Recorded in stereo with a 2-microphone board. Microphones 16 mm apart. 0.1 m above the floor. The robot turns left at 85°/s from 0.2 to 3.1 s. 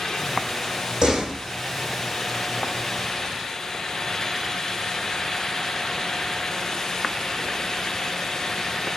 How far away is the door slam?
About 4 m.